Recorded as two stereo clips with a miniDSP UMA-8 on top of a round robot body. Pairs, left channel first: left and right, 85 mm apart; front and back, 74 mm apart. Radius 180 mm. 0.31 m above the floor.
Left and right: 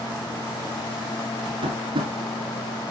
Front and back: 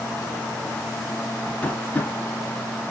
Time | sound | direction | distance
1.6 | tapping | 70° right | 1.7 m